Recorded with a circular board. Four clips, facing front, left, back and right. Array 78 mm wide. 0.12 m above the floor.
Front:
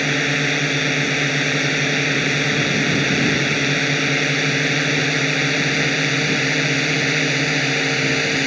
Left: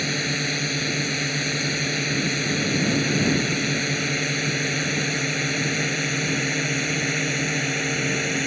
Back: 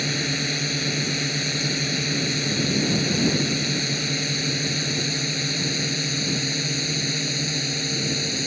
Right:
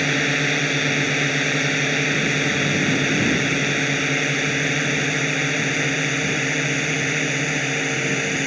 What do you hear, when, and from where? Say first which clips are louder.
0.0 s a drone: right 5 dB, front 7 dB; 35° right; by 8.5 s 15° right